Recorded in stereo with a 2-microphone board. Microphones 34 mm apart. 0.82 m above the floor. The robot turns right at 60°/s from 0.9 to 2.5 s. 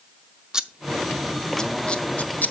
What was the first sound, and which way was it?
Scissors, 20° right (ahead or behind).